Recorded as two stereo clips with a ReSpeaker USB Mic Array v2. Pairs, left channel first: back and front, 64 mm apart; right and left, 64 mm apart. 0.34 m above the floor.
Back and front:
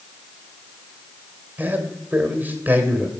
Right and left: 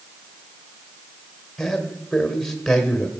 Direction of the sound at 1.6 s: 10° right.